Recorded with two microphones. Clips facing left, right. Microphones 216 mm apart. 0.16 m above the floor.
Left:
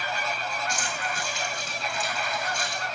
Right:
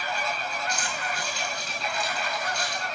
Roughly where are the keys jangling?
Left.